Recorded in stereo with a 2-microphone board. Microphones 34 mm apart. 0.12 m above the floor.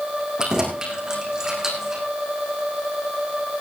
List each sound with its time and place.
0.4 s keys jangling: 20° right (ahead or behind), 6 m; by 2.0 s 10° right (ahead or behind), 5.5 m